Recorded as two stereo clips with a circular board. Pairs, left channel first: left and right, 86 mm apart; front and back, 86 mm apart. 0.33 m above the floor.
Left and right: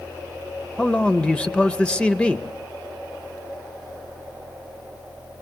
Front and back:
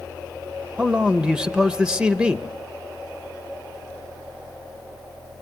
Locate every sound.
0.8 s a man speaking: 135° left, 0.8 m